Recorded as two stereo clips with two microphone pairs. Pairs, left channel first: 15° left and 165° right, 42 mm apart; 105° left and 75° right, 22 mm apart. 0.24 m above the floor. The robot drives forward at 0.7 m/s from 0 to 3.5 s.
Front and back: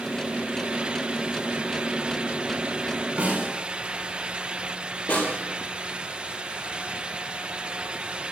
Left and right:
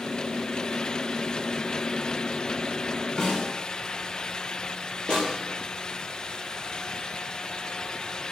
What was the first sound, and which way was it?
A snare drum, 155° left.